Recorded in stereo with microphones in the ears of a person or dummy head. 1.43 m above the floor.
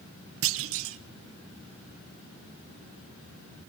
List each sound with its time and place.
0.4 s a clunk: 75° right (ahead or behind), 1.0 m